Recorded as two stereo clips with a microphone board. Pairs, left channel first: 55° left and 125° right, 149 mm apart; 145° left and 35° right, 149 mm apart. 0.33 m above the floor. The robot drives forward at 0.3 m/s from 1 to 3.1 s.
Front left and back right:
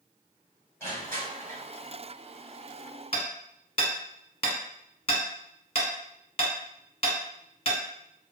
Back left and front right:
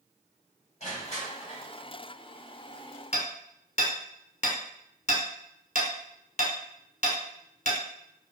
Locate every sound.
0.8 s crushing: 125° left, 1.6 m; by 1.6 s 130° left, 1.7 m
3.1 s hammering: 105° left, 0.8 m